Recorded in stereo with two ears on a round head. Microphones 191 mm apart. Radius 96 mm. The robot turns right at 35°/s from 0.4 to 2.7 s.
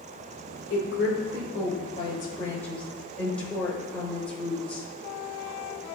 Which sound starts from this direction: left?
A woman speaking, at 0.7 s.